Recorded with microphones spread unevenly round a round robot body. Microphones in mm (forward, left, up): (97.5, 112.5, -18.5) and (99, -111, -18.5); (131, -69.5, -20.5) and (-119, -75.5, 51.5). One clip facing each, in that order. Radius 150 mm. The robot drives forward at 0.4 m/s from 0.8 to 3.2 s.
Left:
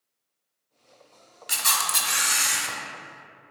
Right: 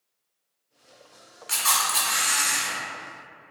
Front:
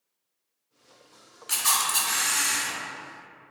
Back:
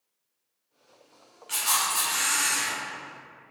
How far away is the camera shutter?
About 0.8 m.